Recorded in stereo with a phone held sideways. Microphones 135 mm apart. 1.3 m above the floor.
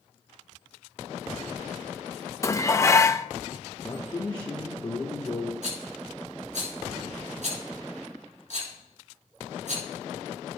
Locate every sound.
2.4 s dishes clattering: 25° left (ahead or behind), 0.6 m
3.8 s a man speaking: 30° left (ahead or behind), 1.2 m
5.6 s a rattle: 65° right (ahead or behind), 5 m